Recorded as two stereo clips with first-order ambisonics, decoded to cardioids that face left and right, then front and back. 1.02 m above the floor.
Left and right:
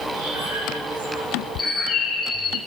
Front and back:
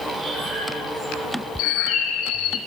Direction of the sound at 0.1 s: 85° right.